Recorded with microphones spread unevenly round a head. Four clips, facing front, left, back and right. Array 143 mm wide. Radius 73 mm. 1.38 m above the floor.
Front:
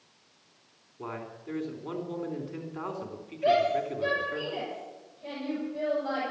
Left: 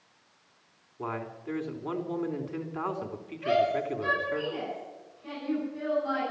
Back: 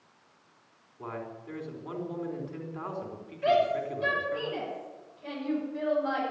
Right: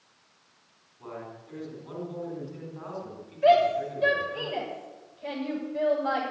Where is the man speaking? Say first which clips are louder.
Left 5 dB, even; 70° left, 3.5 m.